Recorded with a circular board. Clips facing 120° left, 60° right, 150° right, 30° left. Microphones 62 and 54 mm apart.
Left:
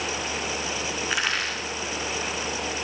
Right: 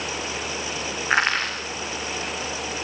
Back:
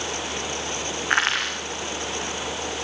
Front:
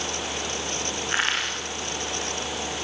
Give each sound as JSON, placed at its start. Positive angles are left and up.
{"t": 1.1, "sound": "crushing", "azimuth_deg": -115, "distance_m": 8.0}